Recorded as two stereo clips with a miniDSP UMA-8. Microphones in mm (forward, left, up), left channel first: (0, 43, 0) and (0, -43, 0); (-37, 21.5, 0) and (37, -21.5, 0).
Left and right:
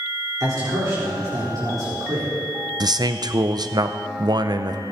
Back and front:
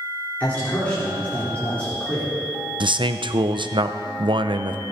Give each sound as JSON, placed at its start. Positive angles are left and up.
{"t": 0.4, "sound": "a man speaking", "azimuth_deg": -135, "distance_m": 4.5}
{"t": 2.8, "sound": "a man speaking", "azimuth_deg": -55, "distance_m": 0.7}